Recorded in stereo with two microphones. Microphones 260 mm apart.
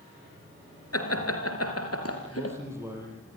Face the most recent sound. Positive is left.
turn(degrees=-10)  # may be behind; listen again after turning